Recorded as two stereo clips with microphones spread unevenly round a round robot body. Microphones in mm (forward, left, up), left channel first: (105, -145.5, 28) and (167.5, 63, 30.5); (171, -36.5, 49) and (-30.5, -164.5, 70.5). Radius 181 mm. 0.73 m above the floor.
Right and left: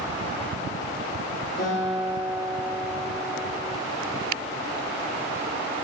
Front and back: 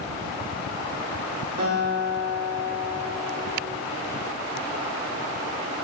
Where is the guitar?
175° right, 9 m.